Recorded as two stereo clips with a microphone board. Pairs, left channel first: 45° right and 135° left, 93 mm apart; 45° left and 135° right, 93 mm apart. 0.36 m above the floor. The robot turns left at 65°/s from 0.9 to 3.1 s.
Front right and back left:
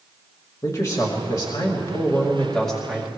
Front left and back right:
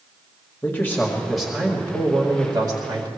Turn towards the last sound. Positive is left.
turn(degrees=-155)